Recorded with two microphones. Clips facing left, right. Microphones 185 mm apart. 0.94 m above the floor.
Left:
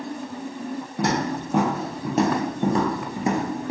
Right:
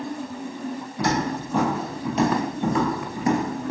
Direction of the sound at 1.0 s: 60° left (ahead or behind).